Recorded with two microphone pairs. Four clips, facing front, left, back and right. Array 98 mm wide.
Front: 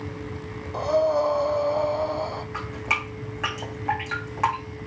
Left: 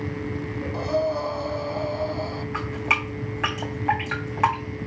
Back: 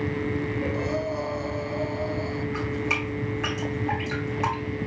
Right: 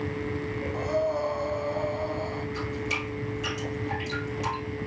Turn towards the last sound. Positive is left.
turn(degrees=65)